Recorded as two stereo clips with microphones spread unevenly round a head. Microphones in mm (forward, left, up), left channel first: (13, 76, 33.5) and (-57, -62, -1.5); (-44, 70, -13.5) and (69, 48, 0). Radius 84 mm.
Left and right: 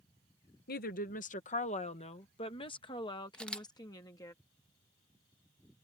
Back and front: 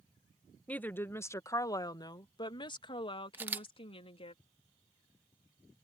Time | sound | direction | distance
0.7 | a woman speaking | 90° left | ?
3.3 | a camera shutter | 20° left | ?